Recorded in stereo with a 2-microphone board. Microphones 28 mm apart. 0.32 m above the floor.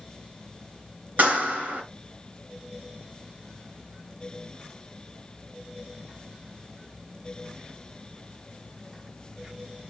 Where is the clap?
75° right (ahead or behind), 3.5 m.